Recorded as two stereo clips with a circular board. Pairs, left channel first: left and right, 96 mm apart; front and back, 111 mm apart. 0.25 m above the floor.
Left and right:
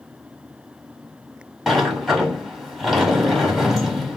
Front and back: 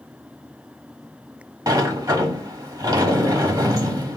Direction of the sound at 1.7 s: Straight behind.